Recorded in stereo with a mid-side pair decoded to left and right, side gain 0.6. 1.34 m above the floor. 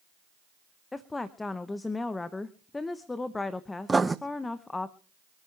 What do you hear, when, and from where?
0.9 s a woman speaking: 20° left, 1.0 m
3.9 s writing: 15° right, 0.7 m